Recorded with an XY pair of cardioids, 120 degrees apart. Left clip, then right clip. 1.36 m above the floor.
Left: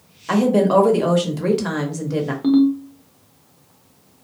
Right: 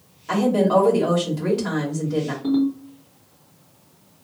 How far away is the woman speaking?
About 1.2 m.